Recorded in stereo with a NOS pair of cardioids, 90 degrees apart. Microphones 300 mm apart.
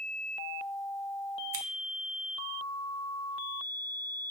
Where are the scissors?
50° right, 0.7 m.